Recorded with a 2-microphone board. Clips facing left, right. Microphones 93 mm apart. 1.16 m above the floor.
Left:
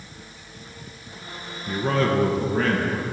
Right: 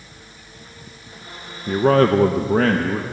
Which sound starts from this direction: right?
A man speaking, at 1.7 s.